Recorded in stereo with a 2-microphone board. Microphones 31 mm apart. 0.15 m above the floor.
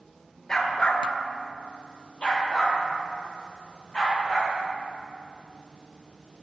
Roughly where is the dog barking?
Centre.